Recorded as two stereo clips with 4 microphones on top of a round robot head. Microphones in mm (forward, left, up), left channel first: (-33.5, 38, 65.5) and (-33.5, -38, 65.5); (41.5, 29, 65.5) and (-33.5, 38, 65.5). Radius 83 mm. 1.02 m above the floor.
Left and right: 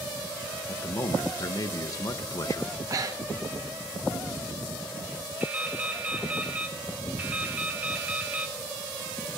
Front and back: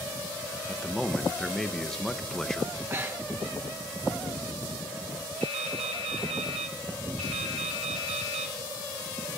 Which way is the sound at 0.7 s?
75° left.